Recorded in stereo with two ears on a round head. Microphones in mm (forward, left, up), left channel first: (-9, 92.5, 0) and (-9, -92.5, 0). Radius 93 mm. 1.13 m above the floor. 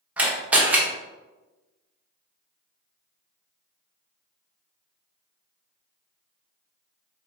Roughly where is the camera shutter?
Centre.